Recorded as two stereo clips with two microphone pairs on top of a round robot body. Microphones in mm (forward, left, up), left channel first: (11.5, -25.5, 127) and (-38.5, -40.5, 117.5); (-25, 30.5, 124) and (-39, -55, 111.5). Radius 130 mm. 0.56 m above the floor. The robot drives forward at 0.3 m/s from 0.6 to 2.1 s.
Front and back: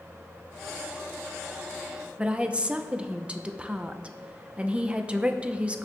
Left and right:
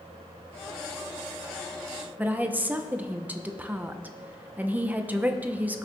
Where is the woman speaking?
140° right, 1.0 m.